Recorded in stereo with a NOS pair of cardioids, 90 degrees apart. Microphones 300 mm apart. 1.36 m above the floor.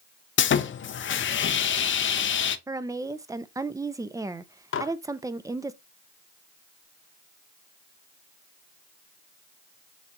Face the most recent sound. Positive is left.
turn(degrees=50)